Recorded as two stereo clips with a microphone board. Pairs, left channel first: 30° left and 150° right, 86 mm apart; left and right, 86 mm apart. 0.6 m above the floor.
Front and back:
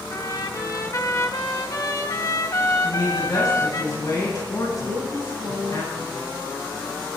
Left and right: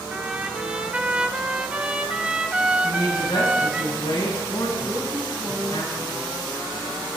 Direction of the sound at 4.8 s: 160° right.